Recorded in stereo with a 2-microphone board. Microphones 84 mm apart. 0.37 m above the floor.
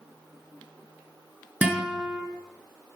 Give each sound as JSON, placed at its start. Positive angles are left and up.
{"t": 1.6, "sound": "a guitar", "side_deg": -20, "distance_m": 3.5}